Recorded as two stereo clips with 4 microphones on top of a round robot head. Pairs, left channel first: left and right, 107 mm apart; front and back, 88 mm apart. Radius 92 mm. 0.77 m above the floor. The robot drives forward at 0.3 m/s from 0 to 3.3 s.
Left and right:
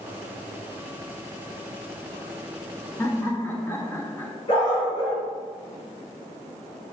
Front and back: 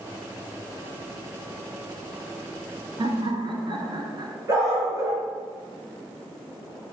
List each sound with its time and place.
3.0 s laughter: 155° left, 1.0 m
4.5 s a dog barking: 130° left, 2.5 m